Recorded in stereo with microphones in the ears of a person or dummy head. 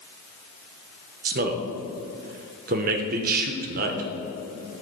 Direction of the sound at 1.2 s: 50° right (ahead or behind).